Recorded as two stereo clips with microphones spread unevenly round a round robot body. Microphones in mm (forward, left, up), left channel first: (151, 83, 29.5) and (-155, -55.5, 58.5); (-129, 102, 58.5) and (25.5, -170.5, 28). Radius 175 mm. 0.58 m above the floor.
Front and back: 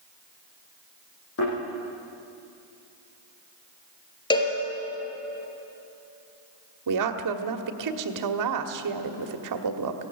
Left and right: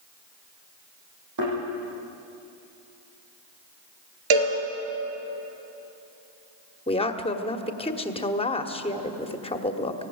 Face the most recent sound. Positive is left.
turn(degrees=-170)